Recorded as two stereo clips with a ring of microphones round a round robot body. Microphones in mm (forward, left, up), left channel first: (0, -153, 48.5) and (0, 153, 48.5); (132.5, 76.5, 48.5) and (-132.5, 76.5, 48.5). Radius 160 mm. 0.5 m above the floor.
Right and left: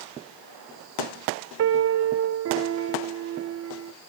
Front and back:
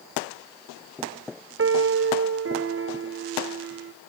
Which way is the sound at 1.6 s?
140° left.